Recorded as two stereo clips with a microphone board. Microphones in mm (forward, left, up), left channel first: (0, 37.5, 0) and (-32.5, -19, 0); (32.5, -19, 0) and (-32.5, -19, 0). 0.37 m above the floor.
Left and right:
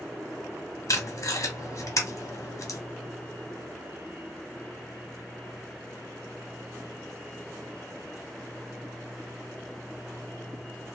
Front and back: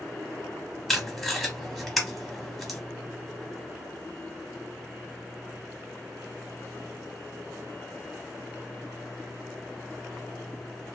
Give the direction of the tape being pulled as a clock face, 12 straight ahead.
9 o'clock.